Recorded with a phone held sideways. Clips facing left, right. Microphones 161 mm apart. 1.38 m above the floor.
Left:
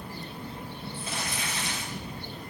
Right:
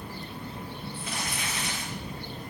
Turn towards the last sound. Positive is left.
turn(degrees=30)  # may be behind; listen again after turning